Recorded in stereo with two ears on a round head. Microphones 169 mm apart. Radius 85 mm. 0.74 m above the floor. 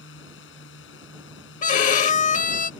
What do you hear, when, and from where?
0.0 s a drone: 70° left (ahead or behind)
1.6 s a violin: 40° left (ahead or behind)